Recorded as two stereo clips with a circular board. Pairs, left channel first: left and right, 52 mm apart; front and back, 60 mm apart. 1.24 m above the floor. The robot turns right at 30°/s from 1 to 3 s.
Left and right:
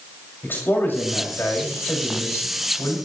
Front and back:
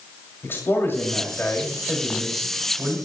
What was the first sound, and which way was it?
A man speaking, 50° left.